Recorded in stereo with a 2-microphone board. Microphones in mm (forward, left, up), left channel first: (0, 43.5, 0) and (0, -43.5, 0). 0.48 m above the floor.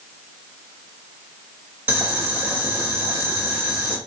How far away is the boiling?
About 1.3 m.